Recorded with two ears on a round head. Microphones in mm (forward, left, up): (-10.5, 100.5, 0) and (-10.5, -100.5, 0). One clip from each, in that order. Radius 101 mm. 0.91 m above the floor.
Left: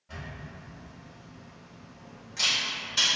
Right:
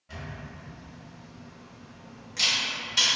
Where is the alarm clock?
I don't hear an alarm clock.